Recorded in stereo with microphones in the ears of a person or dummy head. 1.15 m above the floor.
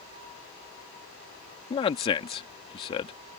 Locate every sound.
1.7 s a man speaking: 30° left (ahead or behind)